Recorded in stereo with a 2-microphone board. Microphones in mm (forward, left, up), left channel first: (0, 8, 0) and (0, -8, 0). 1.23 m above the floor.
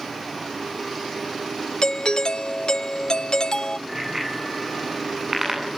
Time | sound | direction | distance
1.8 | a doorbell | 50° left (ahead or behind) | 0.5 m
3.9 | a bicycle bell | 20° right (ahead or behind) | 9 m